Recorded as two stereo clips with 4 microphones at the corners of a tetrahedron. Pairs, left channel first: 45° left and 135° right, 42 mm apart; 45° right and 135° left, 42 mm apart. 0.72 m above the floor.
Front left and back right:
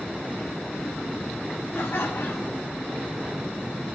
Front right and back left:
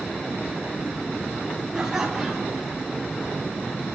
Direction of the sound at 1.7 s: 60° left.